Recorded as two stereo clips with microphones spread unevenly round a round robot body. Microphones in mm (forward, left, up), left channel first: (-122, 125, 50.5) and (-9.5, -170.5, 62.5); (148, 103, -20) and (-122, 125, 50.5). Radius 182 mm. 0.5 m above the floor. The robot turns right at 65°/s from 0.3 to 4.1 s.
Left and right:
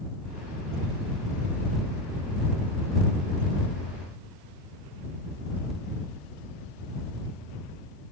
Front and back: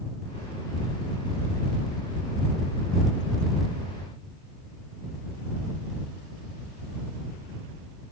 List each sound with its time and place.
Only background noise.